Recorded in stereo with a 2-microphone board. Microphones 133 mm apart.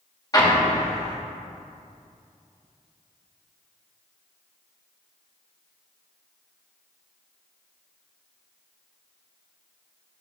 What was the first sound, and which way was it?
An explosion, 30° left (ahead or behind).